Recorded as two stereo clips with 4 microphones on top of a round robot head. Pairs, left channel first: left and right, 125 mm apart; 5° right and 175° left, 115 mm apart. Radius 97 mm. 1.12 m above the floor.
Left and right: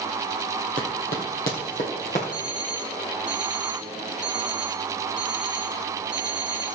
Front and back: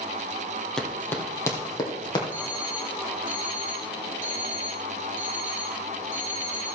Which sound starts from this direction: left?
Running footsteps, at 0.8 s.